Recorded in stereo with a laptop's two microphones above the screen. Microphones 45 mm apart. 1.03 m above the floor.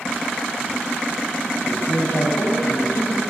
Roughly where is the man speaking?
Left.